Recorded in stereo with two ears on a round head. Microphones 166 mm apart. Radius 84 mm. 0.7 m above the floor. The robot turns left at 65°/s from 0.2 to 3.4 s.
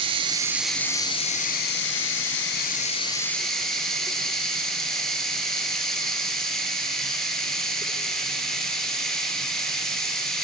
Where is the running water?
150° right, 2 m; by 10.4 s 5° left, 2 m.